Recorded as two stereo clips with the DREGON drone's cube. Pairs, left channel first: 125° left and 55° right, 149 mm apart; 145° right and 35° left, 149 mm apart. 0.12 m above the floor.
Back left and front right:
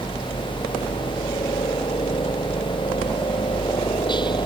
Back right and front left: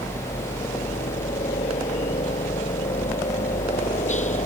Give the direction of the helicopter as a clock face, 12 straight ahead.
6 o'clock.